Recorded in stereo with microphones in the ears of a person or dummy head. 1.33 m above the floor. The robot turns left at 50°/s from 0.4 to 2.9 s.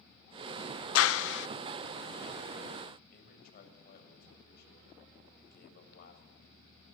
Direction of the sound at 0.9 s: 80° left.